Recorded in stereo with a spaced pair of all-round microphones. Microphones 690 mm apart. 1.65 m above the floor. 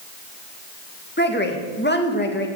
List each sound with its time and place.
1.2 s a woman speaking: 15° left (ahead or behind), 2 m